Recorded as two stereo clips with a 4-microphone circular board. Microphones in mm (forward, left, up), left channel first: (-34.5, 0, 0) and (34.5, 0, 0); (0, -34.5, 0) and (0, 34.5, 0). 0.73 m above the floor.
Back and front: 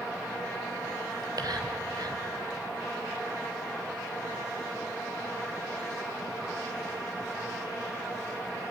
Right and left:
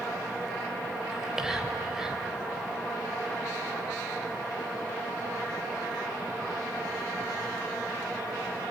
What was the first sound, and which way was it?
Whispering, 10° left.